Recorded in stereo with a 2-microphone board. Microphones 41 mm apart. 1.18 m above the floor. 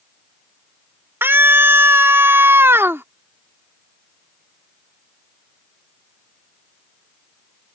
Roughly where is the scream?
Right.